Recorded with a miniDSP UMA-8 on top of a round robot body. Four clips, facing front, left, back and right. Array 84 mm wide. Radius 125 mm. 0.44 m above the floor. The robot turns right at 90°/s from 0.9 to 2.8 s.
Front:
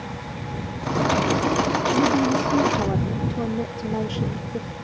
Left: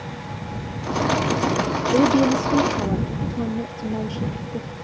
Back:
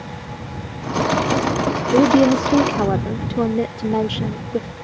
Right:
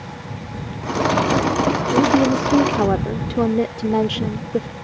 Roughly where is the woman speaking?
Behind left.